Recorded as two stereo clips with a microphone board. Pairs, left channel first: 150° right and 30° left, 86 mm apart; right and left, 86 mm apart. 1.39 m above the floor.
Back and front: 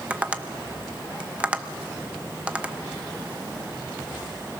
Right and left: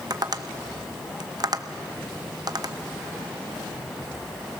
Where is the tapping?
100° left, 0.7 m.